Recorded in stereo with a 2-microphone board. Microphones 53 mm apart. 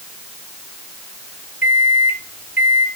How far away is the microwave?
About 3 m.